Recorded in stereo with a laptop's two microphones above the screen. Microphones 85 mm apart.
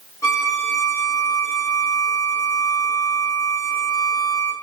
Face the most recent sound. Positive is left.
turn(degrees=35)  # may be behind; listen again after turning